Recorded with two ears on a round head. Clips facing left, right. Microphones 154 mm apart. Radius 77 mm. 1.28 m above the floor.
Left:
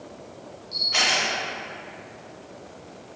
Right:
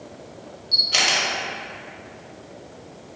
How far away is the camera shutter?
About 0.8 m.